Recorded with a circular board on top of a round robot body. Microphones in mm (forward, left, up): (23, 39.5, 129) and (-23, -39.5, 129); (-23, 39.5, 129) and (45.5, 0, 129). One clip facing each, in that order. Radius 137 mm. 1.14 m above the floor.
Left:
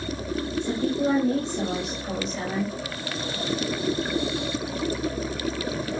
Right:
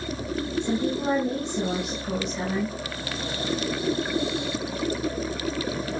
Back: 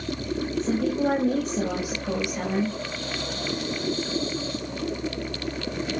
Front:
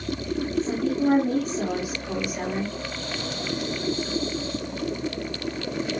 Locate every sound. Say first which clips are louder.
0.6 s a woman speaking: left 1 dB, even; 160° left, 5.5 m